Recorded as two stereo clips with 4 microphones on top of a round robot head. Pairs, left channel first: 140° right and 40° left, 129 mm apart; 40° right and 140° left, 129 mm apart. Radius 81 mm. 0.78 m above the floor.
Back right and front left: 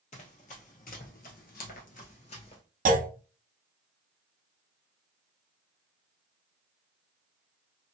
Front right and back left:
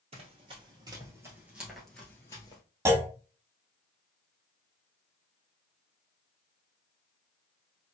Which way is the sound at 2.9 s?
65° left.